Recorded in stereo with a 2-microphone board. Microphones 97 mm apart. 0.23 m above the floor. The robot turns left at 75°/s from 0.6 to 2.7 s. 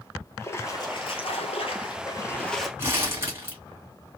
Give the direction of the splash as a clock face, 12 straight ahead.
7 o'clock.